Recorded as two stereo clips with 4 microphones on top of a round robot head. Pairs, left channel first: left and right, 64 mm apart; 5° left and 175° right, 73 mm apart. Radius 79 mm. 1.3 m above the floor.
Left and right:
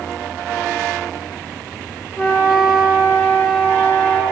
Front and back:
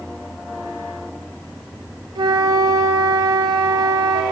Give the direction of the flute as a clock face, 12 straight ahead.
7 o'clock.